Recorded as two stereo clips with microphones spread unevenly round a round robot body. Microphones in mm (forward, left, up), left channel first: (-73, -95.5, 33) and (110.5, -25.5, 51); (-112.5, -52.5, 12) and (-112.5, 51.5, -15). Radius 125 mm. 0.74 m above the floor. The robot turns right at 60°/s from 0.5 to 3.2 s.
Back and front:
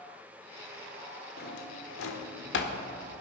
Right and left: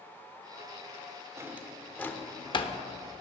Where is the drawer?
155° left, 1.4 m; by 2.8 s 125° right, 1.4 m.